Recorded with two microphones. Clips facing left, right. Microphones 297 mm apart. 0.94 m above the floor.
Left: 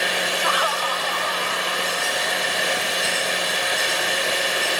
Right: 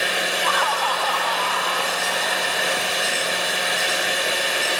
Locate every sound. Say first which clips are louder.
0.4 s laughter: even; 45° right (ahead or behind), 0.7 m; by 3.9 s 75° right (ahead or behind), 6 m